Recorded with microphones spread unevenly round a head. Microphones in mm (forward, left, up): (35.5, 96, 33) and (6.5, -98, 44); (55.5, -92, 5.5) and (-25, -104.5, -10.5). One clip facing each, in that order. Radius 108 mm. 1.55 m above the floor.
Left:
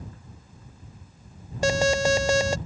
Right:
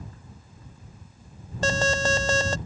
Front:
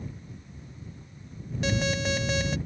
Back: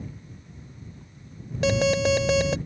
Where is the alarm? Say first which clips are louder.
Left 4 dB, back 7 dB; 160° left.